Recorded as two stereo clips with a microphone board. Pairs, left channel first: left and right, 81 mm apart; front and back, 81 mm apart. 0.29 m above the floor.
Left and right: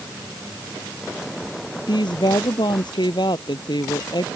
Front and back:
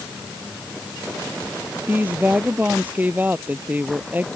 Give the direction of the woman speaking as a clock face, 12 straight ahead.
8 o'clock.